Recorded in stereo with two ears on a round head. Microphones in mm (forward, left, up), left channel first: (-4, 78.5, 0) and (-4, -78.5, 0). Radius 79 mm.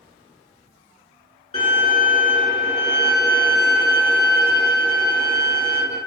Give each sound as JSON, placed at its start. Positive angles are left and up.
{"t": 1.5, "sound": "a violin", "side_deg": 35, "distance_m": 1.5}